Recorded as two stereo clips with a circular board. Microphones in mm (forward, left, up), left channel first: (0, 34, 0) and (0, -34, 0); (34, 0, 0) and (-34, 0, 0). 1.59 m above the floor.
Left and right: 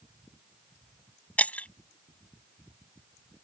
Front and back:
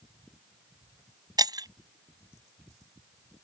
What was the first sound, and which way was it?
Breaking glass, 160° left.